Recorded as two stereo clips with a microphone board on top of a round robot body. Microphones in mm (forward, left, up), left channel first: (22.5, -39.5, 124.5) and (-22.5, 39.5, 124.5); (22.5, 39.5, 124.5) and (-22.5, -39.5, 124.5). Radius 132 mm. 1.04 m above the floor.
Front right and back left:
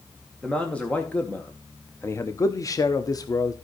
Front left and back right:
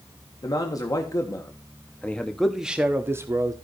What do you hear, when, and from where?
0.4 s a man speaking: 20° left, 1.7 m; by 3.5 s 90° right, 1.0 m